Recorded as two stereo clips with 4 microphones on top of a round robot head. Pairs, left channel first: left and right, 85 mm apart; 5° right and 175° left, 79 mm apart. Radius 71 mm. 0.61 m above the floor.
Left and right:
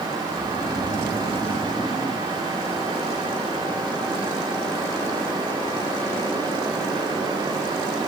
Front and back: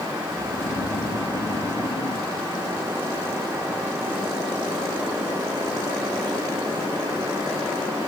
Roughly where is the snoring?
Ahead.